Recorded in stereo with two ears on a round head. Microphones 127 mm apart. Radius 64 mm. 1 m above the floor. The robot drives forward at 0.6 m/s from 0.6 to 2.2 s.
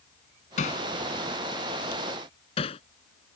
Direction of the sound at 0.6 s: 55° left (ahead or behind).